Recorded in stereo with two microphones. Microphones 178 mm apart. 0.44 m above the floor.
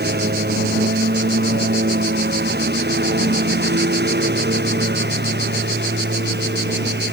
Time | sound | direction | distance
0.0 | a lawn mower | 65° right (ahead or behind) | ?